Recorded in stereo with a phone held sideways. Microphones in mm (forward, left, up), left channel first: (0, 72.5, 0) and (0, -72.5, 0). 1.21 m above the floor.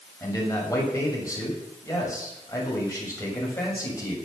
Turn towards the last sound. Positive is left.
turn(degrees=25)  # may be behind; listen again after turning